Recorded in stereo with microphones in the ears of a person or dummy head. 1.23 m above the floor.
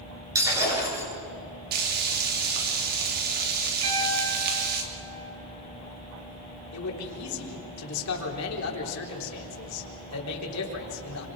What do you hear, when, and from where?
0.3 s breaking glass: 20° right (ahead or behind), 9 m
1.7 s frying: 55° right (ahead or behind), 3 m
3.8 s a piano: 75° right (ahead or behind), 5 m
6.7 s a man speaking: 85° left, 3.5 m